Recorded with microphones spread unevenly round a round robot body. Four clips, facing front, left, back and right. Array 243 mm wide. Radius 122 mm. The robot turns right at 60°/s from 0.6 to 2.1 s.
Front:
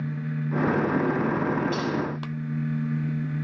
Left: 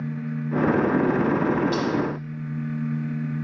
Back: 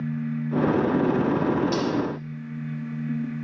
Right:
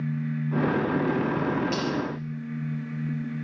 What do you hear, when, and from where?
1.7 s cutlery clinking: 150° right, 6 m; by 1.9 s 135° right, 6 m